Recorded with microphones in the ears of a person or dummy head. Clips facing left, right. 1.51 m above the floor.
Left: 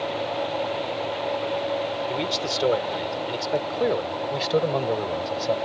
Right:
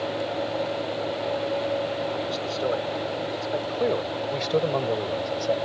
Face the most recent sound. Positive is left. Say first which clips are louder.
# right 2 dB
turn(degrees=5)  # may be behind; listen again after turning